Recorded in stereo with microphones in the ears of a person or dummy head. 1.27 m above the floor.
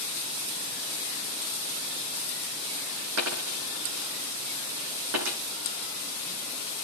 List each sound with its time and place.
3.2 s a dropped coin: 70° right (ahead or behind), 6 m